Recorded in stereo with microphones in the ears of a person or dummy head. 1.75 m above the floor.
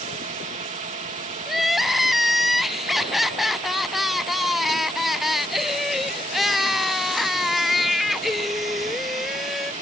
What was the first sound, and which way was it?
A drone, 35° right (ahead or behind).